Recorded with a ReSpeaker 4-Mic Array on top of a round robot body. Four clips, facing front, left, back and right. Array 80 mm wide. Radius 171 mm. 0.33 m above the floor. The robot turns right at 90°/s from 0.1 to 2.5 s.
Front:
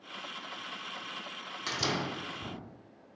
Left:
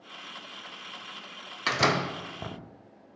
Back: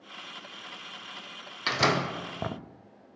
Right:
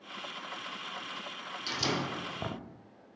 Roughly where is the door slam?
Behind left.